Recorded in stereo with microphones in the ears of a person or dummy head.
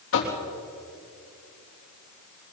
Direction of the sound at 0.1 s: 70° left (ahead or behind).